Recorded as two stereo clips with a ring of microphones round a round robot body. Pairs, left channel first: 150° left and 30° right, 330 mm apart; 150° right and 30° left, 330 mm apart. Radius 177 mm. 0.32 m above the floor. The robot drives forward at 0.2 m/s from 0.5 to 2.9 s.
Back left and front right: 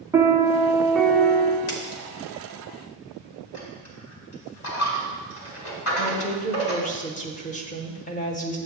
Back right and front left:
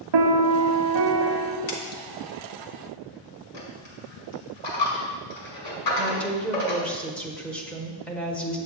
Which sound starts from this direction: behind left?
A woman speaking, at 6.0 s.